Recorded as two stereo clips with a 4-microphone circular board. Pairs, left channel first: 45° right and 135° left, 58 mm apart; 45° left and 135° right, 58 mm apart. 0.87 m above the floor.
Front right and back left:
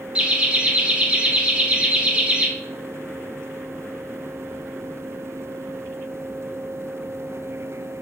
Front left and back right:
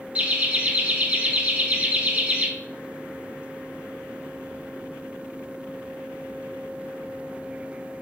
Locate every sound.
0.1 s laughter: 175° right, 0.7 m